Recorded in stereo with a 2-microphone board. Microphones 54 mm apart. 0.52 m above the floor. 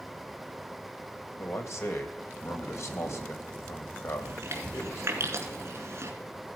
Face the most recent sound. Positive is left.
turn(degrees=-50)  # may be behind; listen again after turning